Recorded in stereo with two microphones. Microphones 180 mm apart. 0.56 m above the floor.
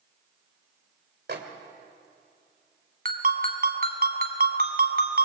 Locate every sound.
1.3 s a microwave: 65° right (ahead or behind), 2.5 m
3.0 s a ringtone: 55° right (ahead or behind), 2 m